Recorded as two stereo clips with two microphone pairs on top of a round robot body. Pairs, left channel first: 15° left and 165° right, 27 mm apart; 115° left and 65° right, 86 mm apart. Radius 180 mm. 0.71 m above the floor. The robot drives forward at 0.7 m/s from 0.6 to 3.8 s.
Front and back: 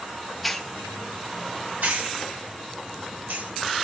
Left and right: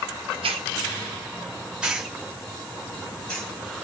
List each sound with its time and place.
0.4 s a hiss: 60° right, 0.6 m; by 3.5 s 165° right, 1.9 m